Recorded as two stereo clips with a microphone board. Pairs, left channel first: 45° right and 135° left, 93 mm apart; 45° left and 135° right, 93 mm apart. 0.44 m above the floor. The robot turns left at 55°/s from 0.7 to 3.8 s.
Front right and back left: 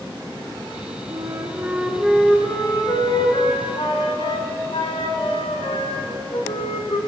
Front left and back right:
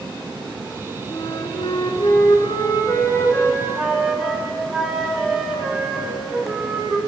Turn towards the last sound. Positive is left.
turn(degrees=-50)